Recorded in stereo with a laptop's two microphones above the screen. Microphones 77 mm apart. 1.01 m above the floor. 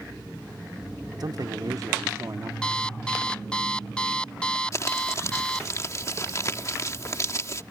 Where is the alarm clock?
10° left (ahead or behind).